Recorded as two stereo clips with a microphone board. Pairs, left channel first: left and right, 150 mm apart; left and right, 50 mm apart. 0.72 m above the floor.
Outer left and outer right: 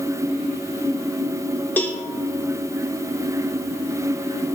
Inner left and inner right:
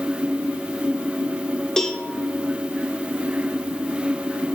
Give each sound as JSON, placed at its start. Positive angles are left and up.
{"t": 1.8, "sound": "a cowbell", "side_deg": 10, "distance_m": 0.8}